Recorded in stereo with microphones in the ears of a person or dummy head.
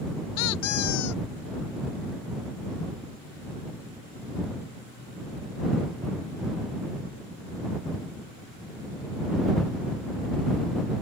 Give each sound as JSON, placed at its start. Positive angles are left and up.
{"t": 0.4, "sound": "a squeak", "side_deg": 85}